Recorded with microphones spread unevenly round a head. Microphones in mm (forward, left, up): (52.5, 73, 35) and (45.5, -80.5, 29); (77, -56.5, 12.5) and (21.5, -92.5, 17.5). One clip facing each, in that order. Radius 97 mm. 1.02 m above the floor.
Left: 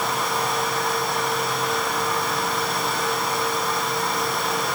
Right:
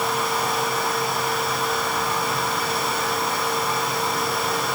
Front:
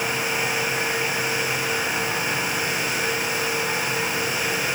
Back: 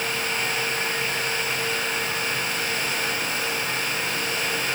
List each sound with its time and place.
Only background noise.